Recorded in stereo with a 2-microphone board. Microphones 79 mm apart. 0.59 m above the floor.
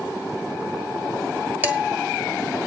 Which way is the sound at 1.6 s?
25° right (ahead or behind).